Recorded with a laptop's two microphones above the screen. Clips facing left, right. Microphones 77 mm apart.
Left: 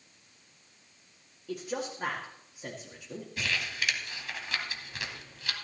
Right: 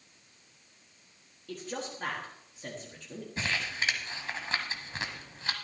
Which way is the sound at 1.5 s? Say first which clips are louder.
Left 3 dB; 10° left (ahead or behind).